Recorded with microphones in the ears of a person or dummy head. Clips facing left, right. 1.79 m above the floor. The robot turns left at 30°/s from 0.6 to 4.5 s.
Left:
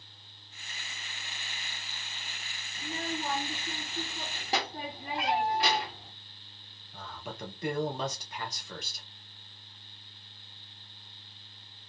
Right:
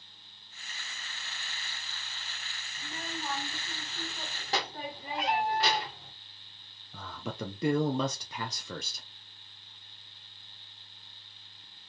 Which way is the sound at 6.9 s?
70° right (ahead or behind).